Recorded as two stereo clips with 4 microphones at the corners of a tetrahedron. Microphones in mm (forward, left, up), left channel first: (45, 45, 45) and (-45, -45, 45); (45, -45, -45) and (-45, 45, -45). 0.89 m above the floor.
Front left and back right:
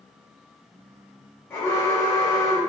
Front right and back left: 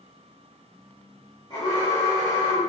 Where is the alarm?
15° right, 1.1 m.